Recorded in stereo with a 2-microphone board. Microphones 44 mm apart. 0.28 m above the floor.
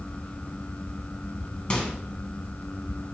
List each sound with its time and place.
1.7 s a microwave: 20° left (ahead or behind), 1.7 m